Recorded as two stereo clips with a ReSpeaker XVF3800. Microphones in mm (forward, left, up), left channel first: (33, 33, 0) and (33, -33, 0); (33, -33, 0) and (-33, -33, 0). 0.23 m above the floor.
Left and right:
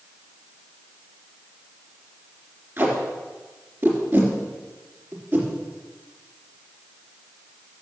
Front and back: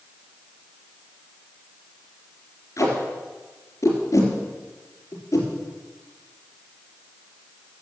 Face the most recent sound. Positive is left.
turn(degrees=-35)